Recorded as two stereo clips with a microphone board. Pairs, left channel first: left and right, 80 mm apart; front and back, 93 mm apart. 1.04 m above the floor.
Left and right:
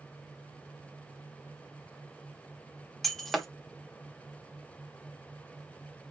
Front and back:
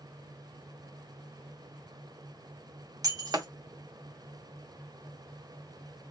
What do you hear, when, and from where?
3.0 s breaking glass: straight behind, 0.7 m